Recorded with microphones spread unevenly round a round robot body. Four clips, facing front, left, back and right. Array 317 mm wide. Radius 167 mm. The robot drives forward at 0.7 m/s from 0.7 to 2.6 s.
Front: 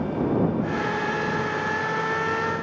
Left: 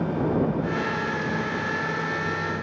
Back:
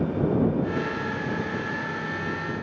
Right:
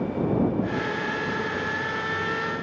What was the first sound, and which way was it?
Only background noise.